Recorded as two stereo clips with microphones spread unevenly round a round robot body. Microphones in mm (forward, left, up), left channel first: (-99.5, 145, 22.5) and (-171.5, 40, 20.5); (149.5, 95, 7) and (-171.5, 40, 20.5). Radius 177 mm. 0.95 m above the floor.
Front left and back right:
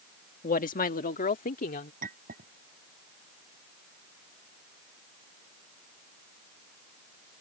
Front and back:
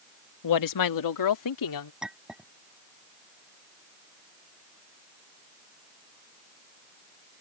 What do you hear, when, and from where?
0.4 s a woman speaking: 35° left
2.0 s a clink: 80° right